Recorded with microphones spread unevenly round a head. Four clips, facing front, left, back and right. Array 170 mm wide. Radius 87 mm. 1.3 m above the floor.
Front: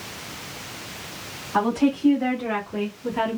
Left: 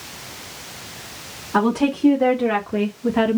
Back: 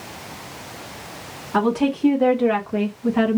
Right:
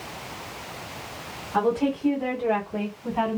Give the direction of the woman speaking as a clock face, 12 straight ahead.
8 o'clock.